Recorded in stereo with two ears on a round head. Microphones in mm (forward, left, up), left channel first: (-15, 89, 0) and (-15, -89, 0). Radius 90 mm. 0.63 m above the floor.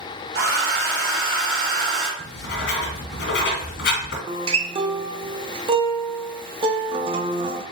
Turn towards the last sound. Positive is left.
turn(degrees=-25)  # may be behind; listen again after turning